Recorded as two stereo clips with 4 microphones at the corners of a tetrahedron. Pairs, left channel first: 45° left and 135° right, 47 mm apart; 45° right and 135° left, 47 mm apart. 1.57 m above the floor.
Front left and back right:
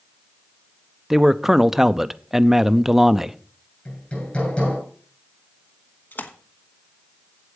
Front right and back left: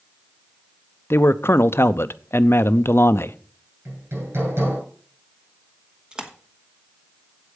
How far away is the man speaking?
About 0.5 m.